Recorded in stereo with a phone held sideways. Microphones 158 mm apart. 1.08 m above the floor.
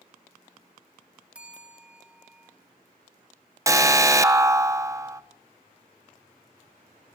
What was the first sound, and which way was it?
A bell, 10° right (ahead or behind).